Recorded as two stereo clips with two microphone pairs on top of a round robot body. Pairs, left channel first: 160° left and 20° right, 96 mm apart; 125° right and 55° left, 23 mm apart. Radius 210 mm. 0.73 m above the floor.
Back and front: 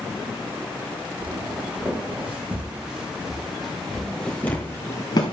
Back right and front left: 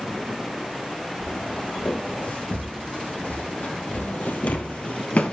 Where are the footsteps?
95° right, 5 m; by 5.3 s 160° right, 1.3 m.